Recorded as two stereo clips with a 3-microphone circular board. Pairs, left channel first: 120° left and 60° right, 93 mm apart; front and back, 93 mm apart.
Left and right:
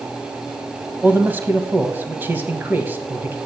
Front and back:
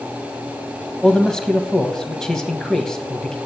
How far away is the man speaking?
About 1.1 m.